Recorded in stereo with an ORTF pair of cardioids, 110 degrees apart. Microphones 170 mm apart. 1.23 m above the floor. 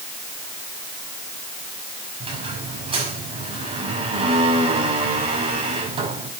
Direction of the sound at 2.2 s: 35° right.